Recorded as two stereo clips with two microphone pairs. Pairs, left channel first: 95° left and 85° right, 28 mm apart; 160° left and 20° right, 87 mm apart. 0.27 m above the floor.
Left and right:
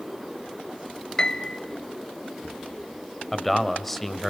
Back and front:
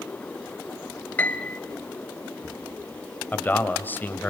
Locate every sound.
1.2 s a piano: 105° left, 1.0 m
3.3 s a man speaking: 160° left, 1.3 m